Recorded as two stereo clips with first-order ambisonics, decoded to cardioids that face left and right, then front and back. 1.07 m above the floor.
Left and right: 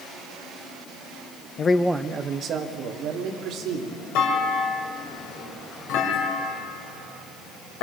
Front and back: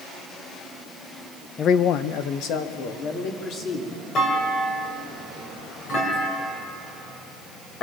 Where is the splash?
I don't hear a splash.